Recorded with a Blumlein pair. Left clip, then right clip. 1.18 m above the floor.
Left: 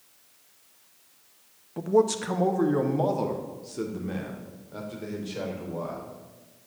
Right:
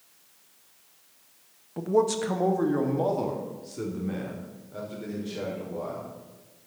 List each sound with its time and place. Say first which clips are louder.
1.8 s a man speaking: left 1 dB; straight ahead, 0.9 m; by 6.1 s 10° left, 4.5 m